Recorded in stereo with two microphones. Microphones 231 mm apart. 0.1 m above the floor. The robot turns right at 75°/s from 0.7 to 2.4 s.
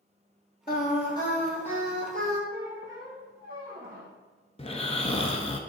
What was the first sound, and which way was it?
Singing, 120° left.